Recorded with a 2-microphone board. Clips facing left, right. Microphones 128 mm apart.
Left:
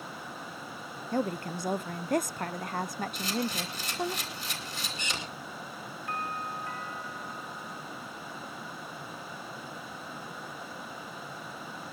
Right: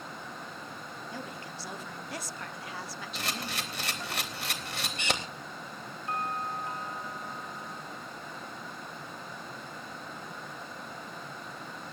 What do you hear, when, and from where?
1.1 s a woman speaking: 50° left (ahead or behind), 0.5 m
3.1 s a camera shutter: 70° right (ahead or behind), 2.5 m
6.1 s a doorbell: 25° right (ahead or behind), 5 m